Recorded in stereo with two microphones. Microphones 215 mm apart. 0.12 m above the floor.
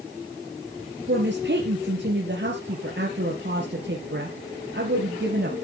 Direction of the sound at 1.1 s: 55° right (ahead or behind).